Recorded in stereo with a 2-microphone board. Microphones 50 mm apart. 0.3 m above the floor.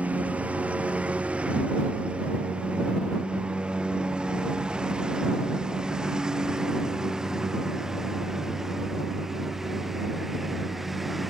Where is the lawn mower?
25° right (ahead or behind); by 11.3 s centre (ahead or behind).